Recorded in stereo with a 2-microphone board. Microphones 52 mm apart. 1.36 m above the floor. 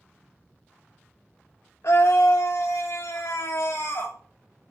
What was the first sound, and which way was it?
A scream, 70° left (ahead or behind).